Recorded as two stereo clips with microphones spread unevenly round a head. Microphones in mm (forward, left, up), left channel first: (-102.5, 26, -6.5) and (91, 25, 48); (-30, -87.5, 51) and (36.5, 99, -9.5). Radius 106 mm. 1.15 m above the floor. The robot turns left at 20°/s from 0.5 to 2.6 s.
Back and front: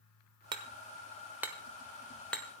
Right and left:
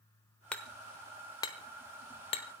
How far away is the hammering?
About 1.0 m.